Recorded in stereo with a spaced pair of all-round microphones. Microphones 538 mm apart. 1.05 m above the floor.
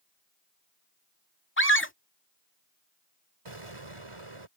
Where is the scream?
20° left (ahead or behind).